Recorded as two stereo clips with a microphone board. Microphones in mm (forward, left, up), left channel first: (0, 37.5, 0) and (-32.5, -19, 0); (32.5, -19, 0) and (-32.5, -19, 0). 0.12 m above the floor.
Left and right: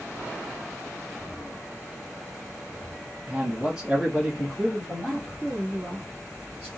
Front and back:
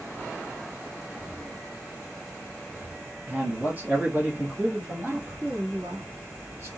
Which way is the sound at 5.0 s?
160° left.